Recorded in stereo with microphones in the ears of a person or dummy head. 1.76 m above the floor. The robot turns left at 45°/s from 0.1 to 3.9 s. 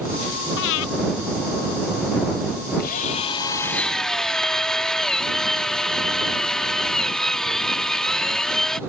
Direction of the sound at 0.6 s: 60° left (ahead or behind).